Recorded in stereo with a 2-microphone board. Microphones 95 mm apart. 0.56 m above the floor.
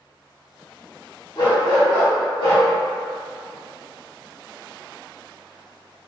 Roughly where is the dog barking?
Left.